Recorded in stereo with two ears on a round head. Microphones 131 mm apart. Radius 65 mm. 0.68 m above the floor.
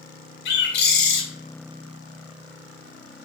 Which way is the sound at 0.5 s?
80° left.